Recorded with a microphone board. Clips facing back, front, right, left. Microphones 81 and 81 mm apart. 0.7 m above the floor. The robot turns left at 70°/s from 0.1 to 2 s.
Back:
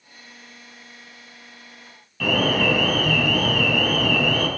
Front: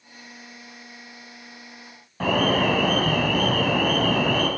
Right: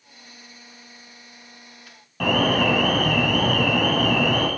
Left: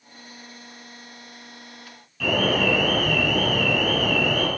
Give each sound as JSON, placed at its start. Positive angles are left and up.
{"t": 2.2, "sound": "an alarm", "azimuth_deg": -55, "distance_m": 4.0}